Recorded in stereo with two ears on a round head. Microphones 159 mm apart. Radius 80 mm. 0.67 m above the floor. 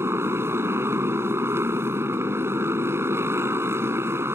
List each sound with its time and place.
0.0 s a motorcycle: 15° right (ahead or behind)